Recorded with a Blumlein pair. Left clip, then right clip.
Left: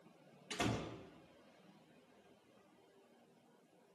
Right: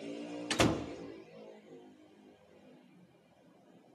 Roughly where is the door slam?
Ahead right.